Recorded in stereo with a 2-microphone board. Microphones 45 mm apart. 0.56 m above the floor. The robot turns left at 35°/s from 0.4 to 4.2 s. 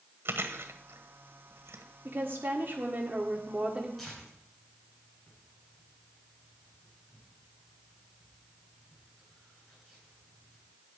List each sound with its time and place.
0.2 s chewing: 60° right (ahead or behind), 1.3 m; by 1.8 s 70° right (ahead or behind), 1.3 m
2.0 s a woman speaking: 75° right, 1.7 m; by 3.9 s 140° right, 1.7 m
4.0 s tearing paper: 5° left (ahead or behind), 8.5 m; by 10.7 s 5° right (ahead or behind), 8.5 m